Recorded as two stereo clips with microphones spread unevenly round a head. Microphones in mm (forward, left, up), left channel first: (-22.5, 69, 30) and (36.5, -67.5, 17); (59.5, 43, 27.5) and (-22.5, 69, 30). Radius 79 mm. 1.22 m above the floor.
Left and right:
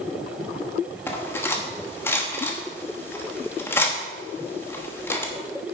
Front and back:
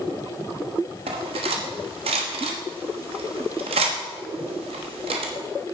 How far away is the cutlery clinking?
About 1.1 m.